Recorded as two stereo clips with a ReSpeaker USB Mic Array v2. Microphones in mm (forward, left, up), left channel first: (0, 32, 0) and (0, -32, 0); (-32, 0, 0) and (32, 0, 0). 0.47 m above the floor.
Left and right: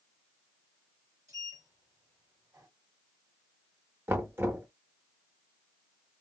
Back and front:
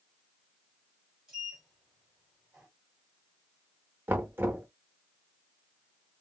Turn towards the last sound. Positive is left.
turn(degrees=-45)